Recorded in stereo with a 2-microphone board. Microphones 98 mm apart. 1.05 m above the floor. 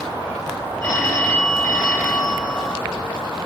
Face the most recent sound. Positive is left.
turn(degrees=25)  # may be behind; listen again after turning